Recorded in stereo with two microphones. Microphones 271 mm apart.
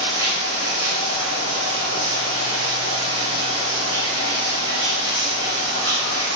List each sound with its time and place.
0.0 s running water: 65° right (ahead or behind), 5 m